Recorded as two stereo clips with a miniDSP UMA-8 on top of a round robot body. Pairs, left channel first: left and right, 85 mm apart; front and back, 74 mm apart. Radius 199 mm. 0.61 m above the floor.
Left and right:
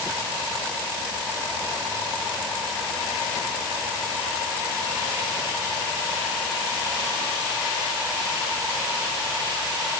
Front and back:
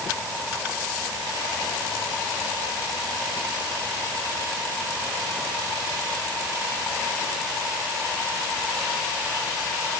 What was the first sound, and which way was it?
Only background noise.